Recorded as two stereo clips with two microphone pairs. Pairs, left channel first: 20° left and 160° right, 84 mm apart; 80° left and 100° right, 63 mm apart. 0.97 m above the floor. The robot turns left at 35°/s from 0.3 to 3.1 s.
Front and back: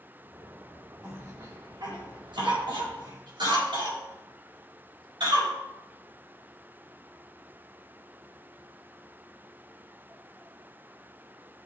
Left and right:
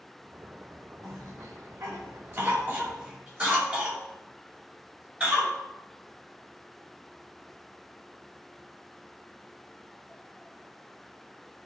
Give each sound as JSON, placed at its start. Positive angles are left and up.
{"t": 1.0, "sound": "a cough", "azimuth_deg": -95, "distance_m": 4.5}